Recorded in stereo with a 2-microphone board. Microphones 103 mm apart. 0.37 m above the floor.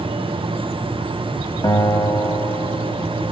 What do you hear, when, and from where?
1.6 s a guitar: 35° left (ahead or behind), 1.5 m